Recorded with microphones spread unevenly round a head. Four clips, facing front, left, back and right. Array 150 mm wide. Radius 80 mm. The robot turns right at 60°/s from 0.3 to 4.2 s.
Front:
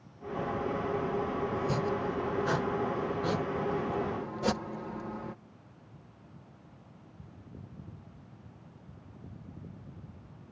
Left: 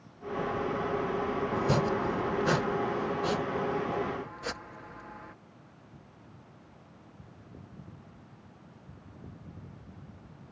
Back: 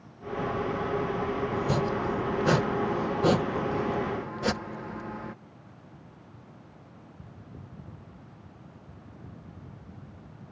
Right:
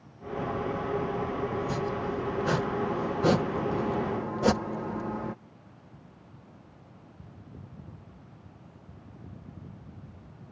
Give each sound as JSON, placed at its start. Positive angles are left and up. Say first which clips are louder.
{"t": 1.5, "sound": "chopping", "louder": "left 3 dB, back 3 dB", "azimuth_deg": 110}